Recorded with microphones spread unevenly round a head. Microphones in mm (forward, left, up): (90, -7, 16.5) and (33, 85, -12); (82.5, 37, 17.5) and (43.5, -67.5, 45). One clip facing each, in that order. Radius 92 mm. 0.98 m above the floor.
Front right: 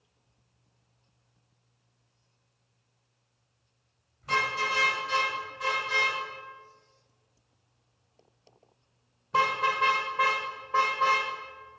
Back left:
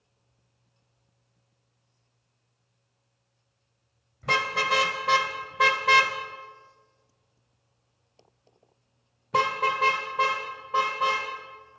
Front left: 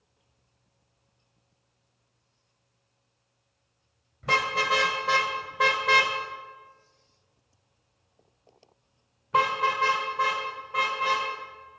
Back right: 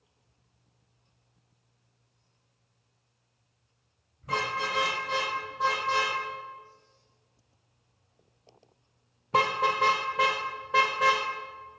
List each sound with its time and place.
4.2 s a car horn: 105° left, 2.5 m; by 11.2 s 150° right, 2 m